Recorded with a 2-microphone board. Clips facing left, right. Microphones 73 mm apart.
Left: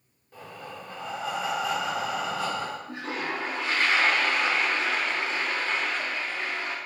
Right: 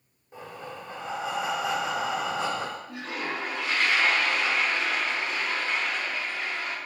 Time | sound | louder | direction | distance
0.3 | breathing | right 1 dB | 20° right (ahead or behind) | 0.7 m
2.9 | a toilet flushing | left 1 dB | 35° left (ahead or behind) | 0.7 m